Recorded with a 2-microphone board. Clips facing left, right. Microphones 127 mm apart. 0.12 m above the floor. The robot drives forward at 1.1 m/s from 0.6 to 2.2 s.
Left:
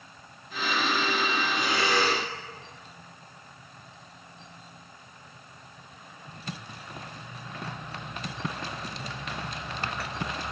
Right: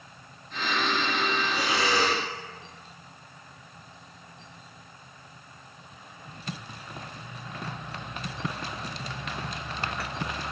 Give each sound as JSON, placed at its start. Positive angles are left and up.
{"t": 1.5, "sound": "breathing", "side_deg": -80, "distance_m": 9.0}